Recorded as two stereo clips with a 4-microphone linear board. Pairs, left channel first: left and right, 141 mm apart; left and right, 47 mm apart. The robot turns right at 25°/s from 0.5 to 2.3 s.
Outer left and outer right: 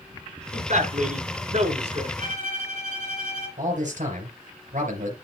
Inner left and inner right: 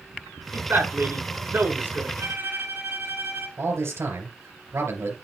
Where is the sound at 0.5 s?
105° right, 3 m; by 2.1 s 65° right, 3 m.